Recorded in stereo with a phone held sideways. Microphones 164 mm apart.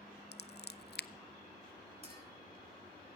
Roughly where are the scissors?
Left.